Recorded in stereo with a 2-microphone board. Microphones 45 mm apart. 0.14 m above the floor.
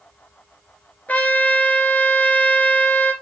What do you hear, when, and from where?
1.1 s a trumpet: 35° left (ahead or behind), 1.9 m